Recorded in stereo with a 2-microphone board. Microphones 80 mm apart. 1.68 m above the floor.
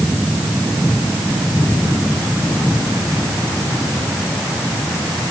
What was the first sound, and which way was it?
Only background noise.